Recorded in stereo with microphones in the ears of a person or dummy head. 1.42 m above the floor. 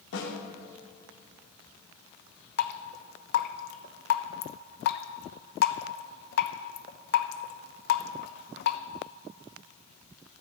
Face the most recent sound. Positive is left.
turn(degrees=65)  # may be behind; listen again after turning